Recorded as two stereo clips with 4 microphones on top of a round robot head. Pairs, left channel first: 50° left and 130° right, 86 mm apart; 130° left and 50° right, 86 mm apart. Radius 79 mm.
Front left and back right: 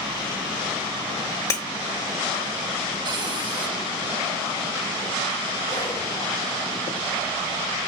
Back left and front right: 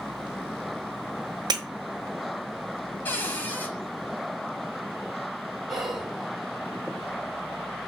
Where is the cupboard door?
160° right, 2.5 m.